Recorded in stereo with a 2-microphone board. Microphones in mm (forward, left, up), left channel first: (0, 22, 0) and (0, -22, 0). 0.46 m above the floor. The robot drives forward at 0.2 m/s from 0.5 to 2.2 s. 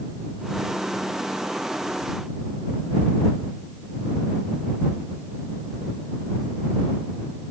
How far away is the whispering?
No whispering in this recording.